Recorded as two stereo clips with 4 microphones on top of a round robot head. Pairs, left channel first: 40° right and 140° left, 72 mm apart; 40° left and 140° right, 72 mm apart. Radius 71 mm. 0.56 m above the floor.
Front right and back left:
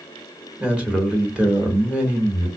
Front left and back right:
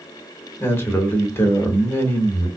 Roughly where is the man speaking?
Left.